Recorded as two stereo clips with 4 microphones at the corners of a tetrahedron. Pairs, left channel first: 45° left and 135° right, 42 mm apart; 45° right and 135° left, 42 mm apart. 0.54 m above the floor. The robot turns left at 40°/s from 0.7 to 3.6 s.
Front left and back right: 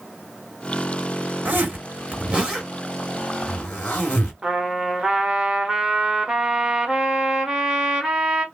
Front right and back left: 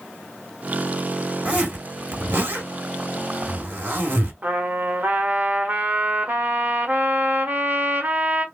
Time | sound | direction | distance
1.4 | a zipper | 165° right | 2.5 m
4.4 | a trumpet | 155° left | 1.2 m